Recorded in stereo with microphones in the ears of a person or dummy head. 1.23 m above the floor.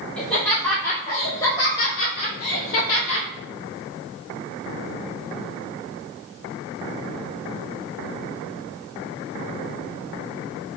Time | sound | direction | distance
0.2 | laughter | centre (ahead or behind) | 2 m